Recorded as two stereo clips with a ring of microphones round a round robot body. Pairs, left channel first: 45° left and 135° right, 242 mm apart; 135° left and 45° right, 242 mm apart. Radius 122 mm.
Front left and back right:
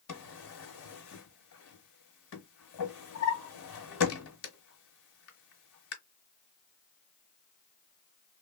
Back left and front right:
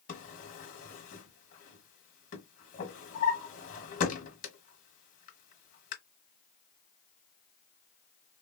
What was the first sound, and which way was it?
A drawer, 75° left.